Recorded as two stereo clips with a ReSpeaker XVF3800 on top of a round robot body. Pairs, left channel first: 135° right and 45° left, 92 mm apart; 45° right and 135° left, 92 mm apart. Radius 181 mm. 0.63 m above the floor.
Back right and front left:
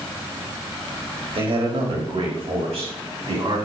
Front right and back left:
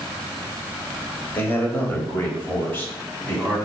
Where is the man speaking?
20° left, 4 m; by 3.6 s 25° left, 6.5 m.